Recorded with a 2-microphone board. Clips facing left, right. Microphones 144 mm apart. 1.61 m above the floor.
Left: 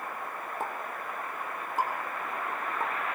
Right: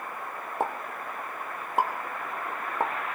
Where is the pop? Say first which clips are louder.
Right 7 dB; 65° right (ahead or behind), 1.2 m.